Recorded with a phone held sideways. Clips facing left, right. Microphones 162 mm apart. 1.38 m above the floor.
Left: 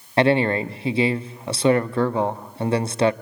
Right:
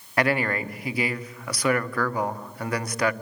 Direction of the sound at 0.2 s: 25° left (ahead or behind).